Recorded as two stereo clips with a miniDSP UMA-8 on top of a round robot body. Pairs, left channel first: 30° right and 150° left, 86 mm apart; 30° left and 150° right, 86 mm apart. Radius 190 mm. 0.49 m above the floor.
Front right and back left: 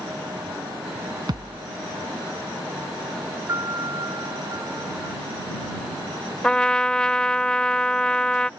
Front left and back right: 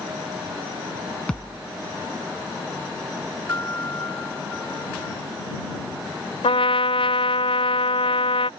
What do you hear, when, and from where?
1.3 s a thud: 110° left
3.5 s a piano: 95° left
6.4 s a trumpet: 50° left